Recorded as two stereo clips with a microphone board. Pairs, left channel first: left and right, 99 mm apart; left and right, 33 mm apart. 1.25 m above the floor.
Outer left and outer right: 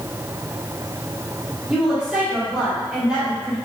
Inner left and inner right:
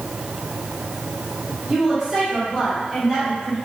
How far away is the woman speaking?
About 2 m.